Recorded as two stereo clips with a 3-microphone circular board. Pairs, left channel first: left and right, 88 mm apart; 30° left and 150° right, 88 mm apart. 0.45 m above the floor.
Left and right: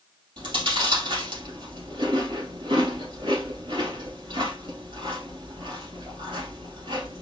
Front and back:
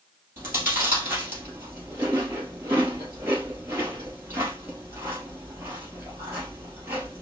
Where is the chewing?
85° right, 3 m.